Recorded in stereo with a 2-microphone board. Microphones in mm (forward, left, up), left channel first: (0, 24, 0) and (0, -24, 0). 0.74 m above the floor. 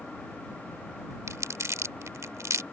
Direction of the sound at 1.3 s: 85° right.